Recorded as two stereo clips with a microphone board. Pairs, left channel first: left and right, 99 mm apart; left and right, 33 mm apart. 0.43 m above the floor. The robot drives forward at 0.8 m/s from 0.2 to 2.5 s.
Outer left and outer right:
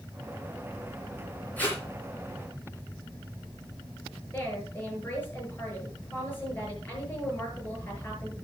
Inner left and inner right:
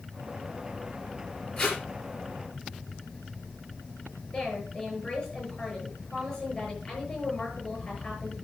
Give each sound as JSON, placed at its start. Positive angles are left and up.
{"t": 1.6, "sound": "tape being pulled", "side_deg": 20, "distance_m": 5.5}
{"t": 4.3, "sound": "a woman speaking", "side_deg": 20, "distance_m": 7.0}